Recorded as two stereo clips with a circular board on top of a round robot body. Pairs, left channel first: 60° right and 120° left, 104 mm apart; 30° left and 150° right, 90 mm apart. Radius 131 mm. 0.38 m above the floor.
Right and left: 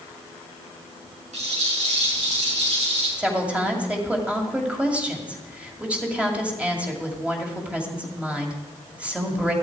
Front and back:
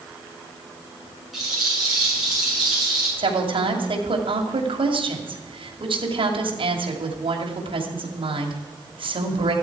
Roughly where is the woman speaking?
Behind.